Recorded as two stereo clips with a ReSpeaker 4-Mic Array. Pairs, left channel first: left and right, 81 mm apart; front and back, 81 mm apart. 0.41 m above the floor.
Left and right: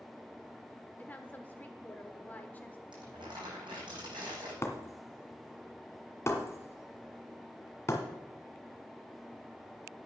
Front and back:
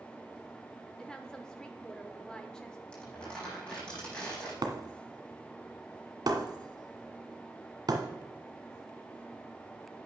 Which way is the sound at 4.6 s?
145° left.